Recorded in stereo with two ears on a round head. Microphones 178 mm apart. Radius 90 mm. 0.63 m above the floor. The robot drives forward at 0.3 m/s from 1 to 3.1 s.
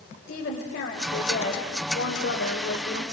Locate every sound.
0.3 s a woman speaking: 50° left (ahead or behind), 3 m; by 3.0 s 60° left (ahead or behind), 3 m